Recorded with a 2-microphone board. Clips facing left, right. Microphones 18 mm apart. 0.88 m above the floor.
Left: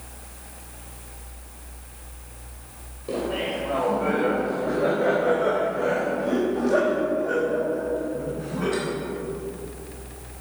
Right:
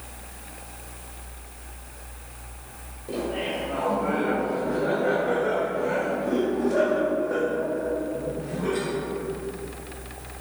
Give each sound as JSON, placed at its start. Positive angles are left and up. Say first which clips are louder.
{"t": 3.1, "sound": "laughter", "louder": "left 2 dB", "side_deg": 40, "distance_m": 3.5}